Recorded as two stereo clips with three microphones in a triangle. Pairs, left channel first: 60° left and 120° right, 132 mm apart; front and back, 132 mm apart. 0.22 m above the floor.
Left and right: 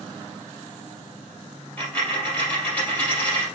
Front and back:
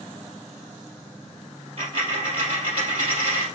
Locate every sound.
1.8 s a dropped coin: 135° left, 3 m